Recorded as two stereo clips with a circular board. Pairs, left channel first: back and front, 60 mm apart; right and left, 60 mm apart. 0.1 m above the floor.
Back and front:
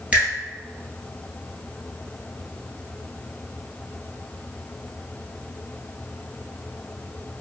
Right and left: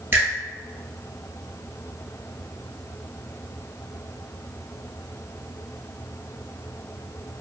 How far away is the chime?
I don't hear a chime.